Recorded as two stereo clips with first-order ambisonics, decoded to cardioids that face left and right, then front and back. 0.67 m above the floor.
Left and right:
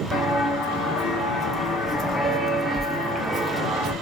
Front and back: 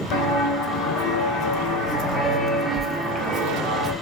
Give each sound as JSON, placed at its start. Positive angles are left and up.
{"t": 0.1, "sound": "footsteps", "azimuth_deg": 25, "distance_m": 1.5}